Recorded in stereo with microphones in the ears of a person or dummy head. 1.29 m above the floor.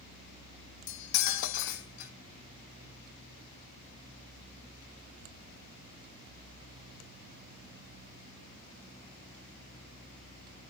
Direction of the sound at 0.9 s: 65° left (ahead or behind).